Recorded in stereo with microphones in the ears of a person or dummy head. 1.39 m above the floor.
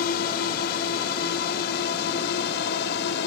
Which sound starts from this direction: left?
A drone, at 0.0 s.